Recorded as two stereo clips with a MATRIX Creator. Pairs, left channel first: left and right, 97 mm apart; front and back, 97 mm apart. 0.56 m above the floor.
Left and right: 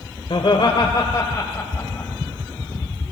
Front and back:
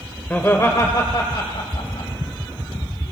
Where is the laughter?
70° left, 1.7 m; by 2.1 s 20° left, 2.5 m.